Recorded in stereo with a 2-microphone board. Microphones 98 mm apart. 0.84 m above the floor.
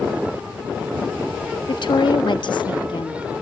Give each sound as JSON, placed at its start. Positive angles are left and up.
{"t": 1.7, "sound": "a woman speaking", "side_deg": 60, "distance_m": 1.3}